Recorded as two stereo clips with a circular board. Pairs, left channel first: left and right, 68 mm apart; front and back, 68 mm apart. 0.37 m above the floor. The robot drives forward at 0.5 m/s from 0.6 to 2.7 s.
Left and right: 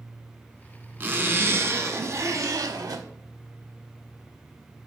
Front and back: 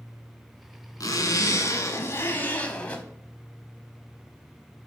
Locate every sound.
1.0 s a zipper: 30° right, 1.2 m; by 3.0 s 70° right, 0.7 m